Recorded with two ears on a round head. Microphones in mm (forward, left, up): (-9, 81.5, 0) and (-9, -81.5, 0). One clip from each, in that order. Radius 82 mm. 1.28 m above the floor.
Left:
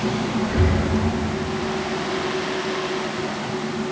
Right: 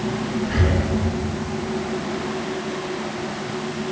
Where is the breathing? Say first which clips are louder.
Right 1 dB; 35° right (ahead or behind), 9 m.